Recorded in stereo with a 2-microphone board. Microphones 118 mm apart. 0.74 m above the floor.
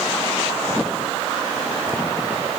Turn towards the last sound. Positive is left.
No sound to turn to.